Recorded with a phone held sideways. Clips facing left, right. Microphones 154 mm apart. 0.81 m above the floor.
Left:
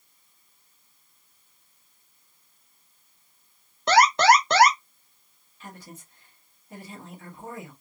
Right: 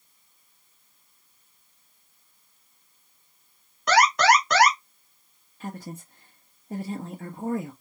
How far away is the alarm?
About 1.1 m.